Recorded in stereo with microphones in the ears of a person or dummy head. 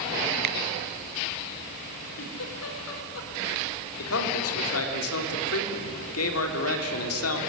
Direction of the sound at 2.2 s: 80° left.